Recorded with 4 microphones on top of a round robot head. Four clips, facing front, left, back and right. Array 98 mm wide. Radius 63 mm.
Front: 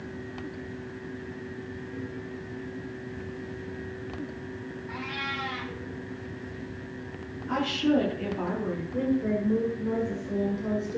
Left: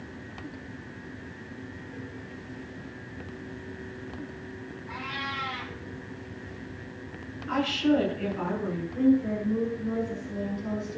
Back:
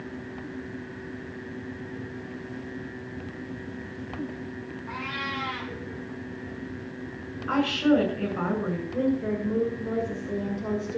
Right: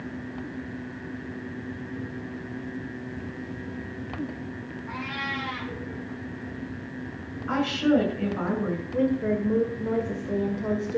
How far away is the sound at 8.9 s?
About 2 m.